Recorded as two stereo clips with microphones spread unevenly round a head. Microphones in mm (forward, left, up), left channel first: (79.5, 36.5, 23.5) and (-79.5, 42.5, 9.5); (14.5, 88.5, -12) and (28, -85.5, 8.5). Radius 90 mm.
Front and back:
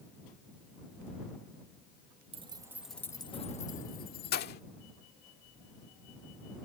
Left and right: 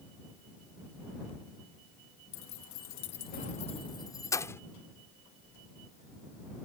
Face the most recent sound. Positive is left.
turn(degrees=15)